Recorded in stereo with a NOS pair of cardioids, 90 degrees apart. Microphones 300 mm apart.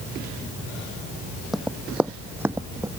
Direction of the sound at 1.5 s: Straight ahead.